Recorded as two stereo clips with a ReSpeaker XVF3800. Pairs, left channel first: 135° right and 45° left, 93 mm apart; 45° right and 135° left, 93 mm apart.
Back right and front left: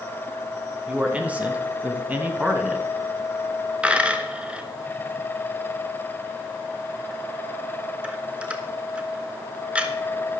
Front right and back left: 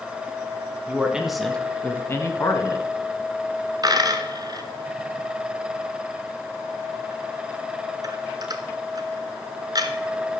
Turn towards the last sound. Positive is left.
turn(degrees=120)